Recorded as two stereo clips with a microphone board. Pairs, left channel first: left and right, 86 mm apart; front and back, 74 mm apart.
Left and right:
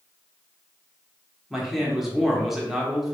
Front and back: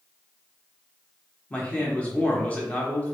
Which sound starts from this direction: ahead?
A man speaking, at 1.5 s.